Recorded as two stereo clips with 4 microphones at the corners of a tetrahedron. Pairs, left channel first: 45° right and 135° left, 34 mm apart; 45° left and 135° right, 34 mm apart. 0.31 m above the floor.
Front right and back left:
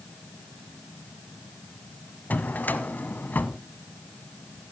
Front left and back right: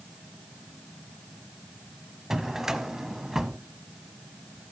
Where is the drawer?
60° right, 0.8 m.